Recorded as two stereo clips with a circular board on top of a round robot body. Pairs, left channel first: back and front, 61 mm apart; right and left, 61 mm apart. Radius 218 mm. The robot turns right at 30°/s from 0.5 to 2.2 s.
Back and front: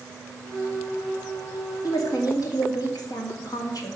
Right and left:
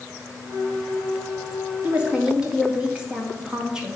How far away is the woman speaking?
About 2.5 m.